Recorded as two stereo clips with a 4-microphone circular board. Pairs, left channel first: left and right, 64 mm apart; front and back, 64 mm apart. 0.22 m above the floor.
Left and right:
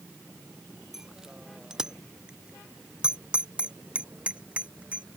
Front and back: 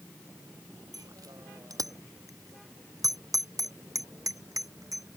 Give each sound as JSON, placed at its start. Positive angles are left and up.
{"t": 0.9, "sound": "a bicycle bell", "azimuth_deg": -170}